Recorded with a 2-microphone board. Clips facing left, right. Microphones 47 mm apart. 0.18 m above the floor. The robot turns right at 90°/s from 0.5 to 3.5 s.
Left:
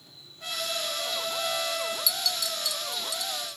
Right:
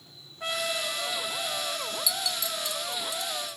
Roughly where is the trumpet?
Ahead right.